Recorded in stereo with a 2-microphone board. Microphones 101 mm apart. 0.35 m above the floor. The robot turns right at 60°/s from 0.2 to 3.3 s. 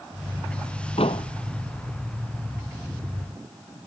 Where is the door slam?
80° left; by 1.3 s 60° left (ahead or behind).